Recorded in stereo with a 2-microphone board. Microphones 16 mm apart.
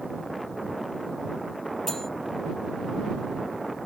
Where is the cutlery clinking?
20° left (ahead or behind).